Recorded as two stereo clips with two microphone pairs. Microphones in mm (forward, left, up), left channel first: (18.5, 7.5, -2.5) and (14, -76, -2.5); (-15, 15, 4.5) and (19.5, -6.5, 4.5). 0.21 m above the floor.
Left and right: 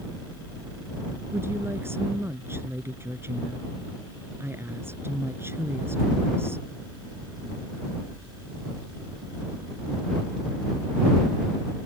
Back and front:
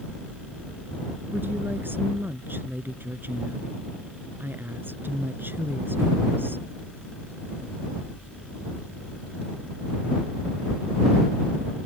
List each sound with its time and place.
1.3 s a woman speaking: 35° right